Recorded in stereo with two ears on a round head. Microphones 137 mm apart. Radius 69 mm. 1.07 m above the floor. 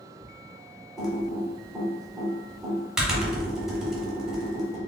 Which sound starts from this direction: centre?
Typing on a keyboard, at 1.0 s.